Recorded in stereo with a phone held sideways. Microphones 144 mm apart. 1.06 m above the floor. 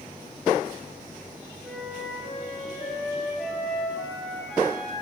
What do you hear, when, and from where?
1.6 s a flute: centre (ahead or behind), 3.5 m